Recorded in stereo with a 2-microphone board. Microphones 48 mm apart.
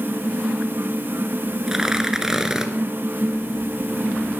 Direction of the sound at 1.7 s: 10° right (ahead or behind).